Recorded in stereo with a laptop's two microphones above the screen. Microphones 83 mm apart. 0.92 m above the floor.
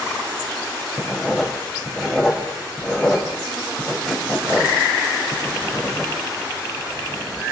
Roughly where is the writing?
Centre.